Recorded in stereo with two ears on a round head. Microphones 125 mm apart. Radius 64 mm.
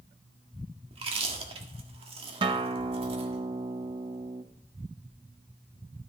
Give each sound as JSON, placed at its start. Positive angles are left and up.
{"t": 0.9, "sound": "chewing", "side_deg": -45, "distance_m": 1.7}
{"t": 2.4, "sound": "a guitar", "side_deg": -35, "distance_m": 0.7}